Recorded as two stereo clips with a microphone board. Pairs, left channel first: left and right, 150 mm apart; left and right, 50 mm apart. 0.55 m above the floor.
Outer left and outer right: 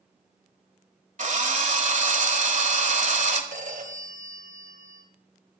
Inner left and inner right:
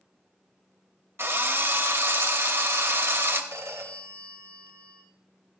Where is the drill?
55° right (ahead or behind), 1.3 m.